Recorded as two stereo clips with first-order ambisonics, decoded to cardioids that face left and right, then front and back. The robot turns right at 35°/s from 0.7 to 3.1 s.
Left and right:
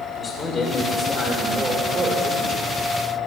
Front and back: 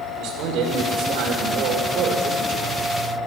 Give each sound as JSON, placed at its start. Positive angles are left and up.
{"t": 0.2, "sound": "a man speaking", "azimuth_deg": 165, "distance_m": 2.0}